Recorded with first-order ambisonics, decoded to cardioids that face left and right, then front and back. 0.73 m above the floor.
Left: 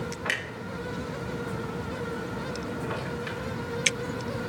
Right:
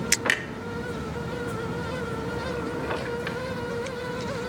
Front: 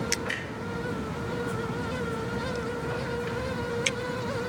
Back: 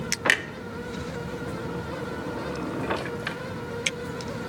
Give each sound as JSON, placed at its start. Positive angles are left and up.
{"t": 0.2, "sound": "a clunk", "azimuth_deg": -160, "distance_m": 0.6}